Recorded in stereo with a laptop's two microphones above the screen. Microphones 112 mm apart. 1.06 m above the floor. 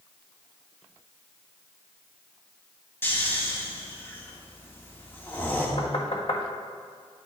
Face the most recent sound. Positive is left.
turn(degrees=60)  # may be behind; listen again after turning